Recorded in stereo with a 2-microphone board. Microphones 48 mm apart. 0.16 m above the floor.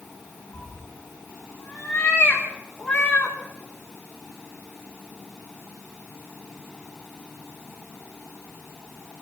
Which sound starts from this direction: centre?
A cat meowing, at 0.5 s.